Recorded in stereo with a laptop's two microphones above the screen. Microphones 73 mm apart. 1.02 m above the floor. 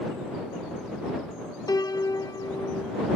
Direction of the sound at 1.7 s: 60° left (ahead or behind).